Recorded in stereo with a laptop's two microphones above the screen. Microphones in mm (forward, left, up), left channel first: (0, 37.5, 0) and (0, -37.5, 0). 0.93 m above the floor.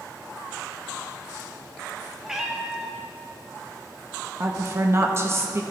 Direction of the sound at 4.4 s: 35° right (ahead or behind).